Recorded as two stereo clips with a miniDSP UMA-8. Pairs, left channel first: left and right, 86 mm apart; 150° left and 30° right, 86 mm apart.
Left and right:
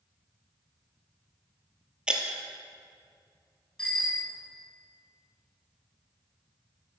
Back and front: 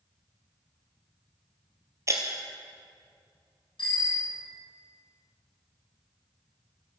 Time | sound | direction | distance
2.1 | breaking glass | 20° right | 1.9 m
3.8 | a bicycle bell | 170° left | 5.5 m